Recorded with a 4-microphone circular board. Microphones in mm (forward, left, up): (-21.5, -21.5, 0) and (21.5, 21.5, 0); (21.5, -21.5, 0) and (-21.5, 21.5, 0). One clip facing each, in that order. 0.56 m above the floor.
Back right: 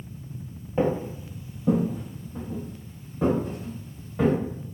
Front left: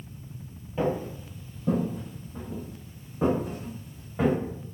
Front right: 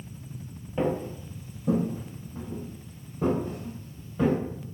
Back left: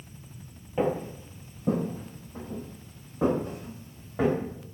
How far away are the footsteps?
About 0.6 m.